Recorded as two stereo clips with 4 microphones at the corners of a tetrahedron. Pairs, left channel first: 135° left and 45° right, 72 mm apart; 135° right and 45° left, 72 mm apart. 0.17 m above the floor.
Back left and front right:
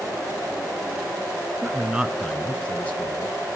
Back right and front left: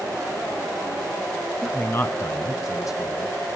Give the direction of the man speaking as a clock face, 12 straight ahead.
2 o'clock.